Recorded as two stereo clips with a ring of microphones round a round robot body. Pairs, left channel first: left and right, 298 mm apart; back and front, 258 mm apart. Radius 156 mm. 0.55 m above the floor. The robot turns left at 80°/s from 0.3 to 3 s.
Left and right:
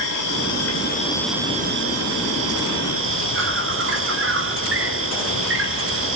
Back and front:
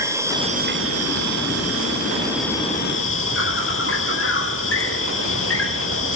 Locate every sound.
0.0 s an insect: 80° left, 3 m; by 6.2 s 135° right, 3 m